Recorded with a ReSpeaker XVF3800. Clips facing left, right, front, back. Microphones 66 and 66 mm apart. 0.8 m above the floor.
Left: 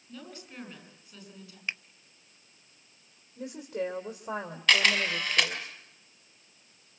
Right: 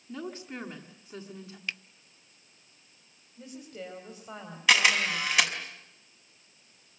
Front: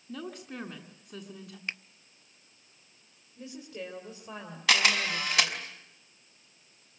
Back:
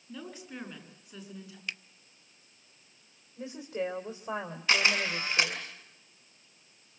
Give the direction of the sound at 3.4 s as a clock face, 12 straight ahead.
8 o'clock.